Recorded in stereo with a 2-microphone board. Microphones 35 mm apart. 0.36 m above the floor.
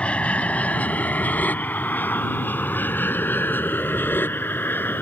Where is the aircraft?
35° left (ahead or behind); by 5.0 s 75° left (ahead or behind).